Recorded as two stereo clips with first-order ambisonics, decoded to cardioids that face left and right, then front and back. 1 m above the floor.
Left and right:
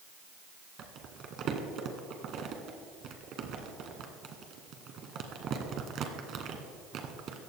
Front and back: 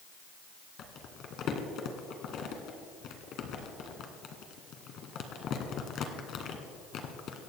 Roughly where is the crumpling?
Ahead right.